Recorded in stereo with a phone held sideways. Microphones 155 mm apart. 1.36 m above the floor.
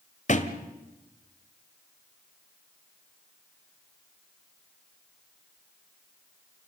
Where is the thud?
50° left (ahead or behind), 1.9 m.